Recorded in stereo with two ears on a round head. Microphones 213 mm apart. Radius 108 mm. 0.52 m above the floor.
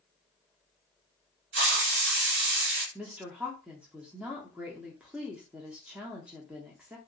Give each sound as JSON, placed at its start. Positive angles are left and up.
{"t": 1.5, "sound": "a hiss", "side_deg": -50, "distance_m": 1.0}
{"t": 3.0, "sound": "a woman speaking", "side_deg": -5, "distance_m": 0.6}